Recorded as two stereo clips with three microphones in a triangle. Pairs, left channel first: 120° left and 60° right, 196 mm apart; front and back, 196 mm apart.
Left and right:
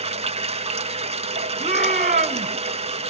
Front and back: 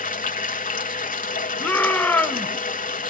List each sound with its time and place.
0.0 s running water: 15° right, 1.0 m
1.6 s a shout: 80° right, 1.6 m